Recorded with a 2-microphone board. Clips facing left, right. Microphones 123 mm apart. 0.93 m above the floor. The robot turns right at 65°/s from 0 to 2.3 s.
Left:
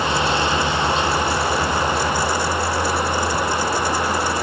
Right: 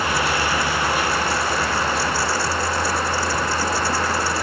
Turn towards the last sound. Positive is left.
No sound to turn to.